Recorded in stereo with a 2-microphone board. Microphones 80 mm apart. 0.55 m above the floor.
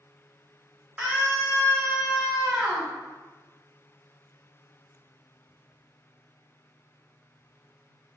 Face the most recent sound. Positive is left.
turn(degrees=-20)  # may be behind; listen again after turning